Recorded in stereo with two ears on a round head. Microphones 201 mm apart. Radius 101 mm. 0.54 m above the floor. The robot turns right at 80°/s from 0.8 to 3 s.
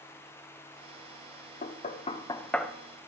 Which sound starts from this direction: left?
Knocking, at 1.6 s.